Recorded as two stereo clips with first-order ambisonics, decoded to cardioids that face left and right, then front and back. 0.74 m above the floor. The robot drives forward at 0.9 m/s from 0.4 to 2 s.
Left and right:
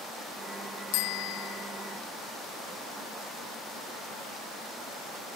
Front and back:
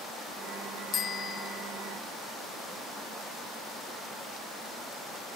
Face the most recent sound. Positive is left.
turn(degrees=80)